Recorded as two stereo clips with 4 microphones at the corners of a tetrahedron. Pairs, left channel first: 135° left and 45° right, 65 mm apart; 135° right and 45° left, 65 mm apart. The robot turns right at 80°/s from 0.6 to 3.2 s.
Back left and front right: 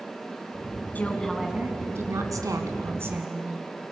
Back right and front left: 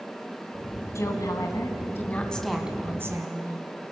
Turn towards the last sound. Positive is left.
turn(degrees=15)